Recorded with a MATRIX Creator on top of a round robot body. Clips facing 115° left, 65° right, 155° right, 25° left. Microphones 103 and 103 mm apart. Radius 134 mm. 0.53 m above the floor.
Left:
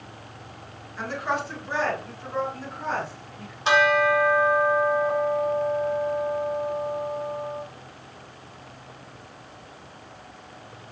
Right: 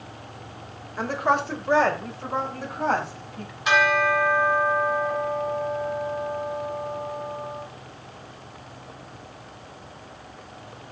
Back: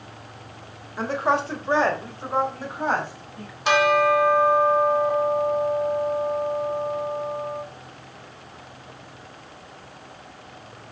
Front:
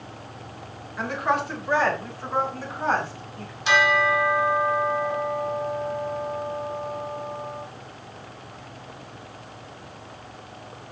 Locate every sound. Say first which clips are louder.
1.0 s a woman speaking: right 5 dB, back 2 dB; 105° right, 3 m; by 3.5 s 80° right, 5.5 m
3.6 s a bell: left 1 dB, back 3 dB; 170° left, 3.5 m